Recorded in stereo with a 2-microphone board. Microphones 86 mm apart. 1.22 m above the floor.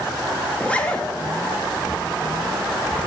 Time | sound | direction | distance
0.5 | a zipper | 15° left (ahead or behind) | 0.7 m